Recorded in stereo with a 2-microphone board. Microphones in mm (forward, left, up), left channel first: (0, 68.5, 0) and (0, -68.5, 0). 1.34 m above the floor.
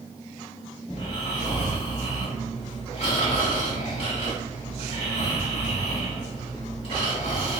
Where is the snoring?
45° left (ahead or behind), 1.6 m.